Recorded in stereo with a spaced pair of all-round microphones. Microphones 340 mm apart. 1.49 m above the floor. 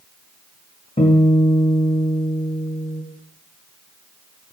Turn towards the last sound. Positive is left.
turn(degrees=20)  # may be behind; listen again after turning